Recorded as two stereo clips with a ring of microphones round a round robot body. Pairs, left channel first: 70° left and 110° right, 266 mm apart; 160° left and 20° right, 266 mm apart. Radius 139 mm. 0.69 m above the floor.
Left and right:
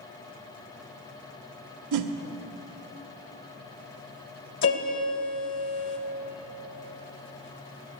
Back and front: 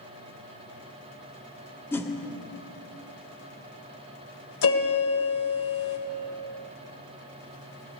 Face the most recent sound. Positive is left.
turn(degrees=115)